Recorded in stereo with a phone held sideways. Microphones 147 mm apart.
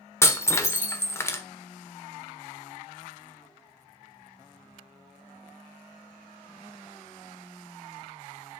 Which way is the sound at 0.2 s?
20° left (ahead or behind).